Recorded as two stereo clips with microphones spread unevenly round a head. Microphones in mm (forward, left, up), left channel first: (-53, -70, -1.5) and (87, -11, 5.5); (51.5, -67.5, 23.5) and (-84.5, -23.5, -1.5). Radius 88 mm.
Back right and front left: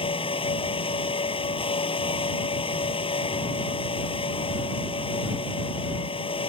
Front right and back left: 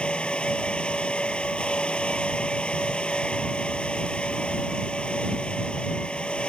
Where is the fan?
100° right.